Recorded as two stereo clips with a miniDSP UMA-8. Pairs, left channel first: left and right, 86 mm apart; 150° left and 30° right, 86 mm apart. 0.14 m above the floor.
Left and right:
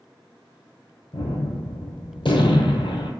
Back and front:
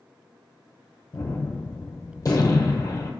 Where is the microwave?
I don't hear a microwave.